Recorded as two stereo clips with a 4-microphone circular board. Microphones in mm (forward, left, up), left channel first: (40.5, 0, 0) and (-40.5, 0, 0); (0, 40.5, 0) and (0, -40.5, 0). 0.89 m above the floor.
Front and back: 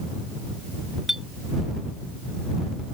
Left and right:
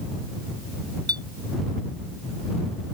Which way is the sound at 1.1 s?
95° right.